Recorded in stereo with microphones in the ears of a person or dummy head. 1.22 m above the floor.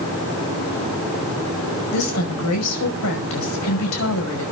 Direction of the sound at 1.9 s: 80° left.